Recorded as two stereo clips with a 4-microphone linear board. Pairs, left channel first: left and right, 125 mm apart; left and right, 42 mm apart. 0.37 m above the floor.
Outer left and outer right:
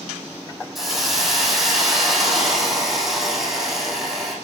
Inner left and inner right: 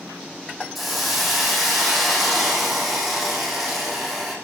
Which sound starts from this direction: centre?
A hiss, at 0.8 s.